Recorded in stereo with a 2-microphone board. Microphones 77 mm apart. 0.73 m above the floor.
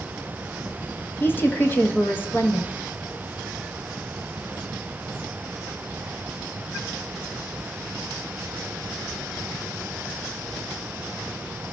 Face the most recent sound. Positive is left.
turn(degrees=25)  # may be behind; listen again after turning